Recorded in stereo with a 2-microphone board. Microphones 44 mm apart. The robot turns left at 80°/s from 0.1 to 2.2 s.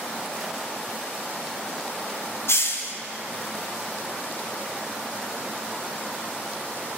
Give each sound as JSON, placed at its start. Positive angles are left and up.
{"t": 2.5, "sound": "a hiss", "side_deg": 70, "distance_m": 0.6}